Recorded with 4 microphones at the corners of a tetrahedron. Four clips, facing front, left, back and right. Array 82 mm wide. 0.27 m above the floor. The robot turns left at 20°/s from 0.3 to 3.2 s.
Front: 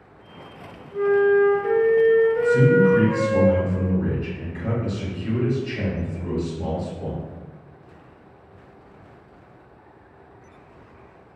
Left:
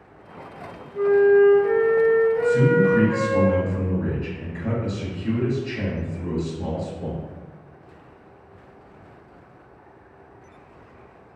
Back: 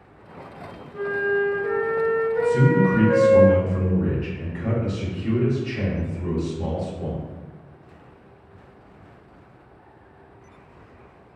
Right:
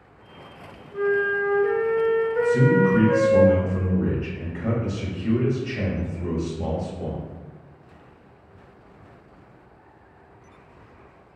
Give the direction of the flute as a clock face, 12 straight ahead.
2 o'clock.